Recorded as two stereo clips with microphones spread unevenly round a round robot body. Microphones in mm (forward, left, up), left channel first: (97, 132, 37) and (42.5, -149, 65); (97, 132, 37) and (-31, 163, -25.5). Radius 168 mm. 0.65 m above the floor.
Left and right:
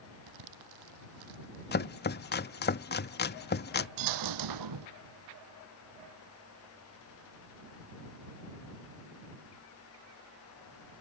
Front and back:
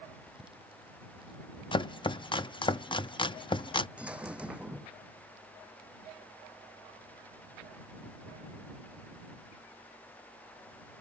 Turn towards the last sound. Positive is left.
turn(degrees=-100)